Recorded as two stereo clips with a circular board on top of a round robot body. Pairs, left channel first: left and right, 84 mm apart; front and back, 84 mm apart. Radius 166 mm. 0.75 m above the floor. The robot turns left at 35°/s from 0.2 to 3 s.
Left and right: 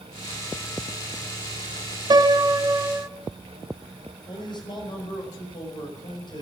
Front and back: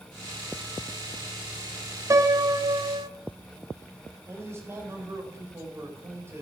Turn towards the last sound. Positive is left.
turn(degrees=120)